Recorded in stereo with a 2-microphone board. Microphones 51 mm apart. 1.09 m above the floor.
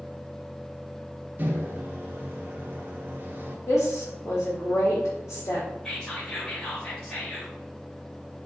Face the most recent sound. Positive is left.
turn(degrees=10)  # may be behind; listen again after turning